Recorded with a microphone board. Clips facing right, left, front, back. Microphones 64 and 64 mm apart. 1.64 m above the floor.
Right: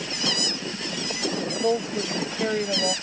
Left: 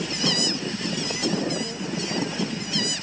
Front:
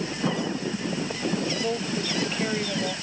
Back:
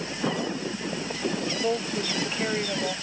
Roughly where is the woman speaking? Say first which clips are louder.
Right 6 dB, back 1 dB; right.